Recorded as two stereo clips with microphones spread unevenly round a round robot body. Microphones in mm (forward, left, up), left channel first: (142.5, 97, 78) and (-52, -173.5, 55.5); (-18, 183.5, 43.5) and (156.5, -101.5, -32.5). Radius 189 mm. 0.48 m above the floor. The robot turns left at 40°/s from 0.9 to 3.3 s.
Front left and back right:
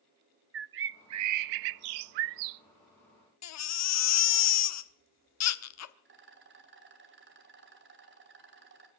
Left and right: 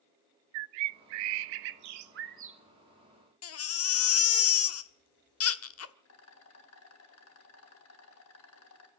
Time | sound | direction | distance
0.5 | a bird | 70° right | 0.5 m
3.4 | a baby crying | 75° left | 1.2 m
6.0 | a rattle | straight behind | 2 m